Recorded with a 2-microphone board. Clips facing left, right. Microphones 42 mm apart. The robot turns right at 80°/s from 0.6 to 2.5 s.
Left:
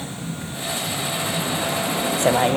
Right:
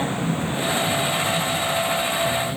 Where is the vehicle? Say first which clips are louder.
Right 7 dB; 35° right; by 2.6 s 115° left.